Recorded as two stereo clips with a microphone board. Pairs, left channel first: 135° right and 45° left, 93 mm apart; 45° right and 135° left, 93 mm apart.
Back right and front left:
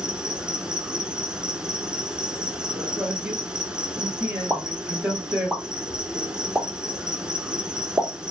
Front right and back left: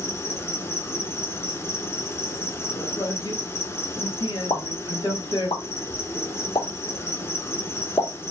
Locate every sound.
0.0 s an insect: 25° right, 0.9 m
3.0 s a man speaking: 25° right, 2.5 m
4.5 s a pop: 25° right, 2.5 m